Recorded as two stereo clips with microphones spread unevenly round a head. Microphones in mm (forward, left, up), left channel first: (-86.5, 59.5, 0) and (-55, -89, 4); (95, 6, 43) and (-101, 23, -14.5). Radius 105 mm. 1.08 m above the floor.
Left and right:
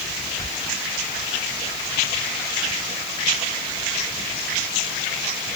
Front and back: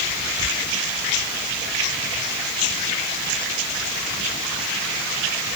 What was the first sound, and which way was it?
Only background noise.